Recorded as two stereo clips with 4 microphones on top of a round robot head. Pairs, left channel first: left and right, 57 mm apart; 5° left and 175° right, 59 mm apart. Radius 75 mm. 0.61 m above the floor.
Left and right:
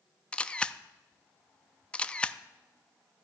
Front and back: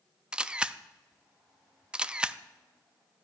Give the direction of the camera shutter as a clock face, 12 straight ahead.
8 o'clock.